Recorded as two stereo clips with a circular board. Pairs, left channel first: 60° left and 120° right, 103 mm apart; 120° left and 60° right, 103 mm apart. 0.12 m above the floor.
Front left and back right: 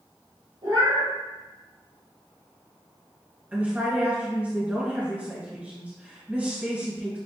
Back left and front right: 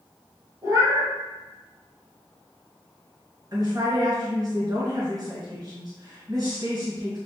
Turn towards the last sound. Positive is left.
turn(degrees=-55)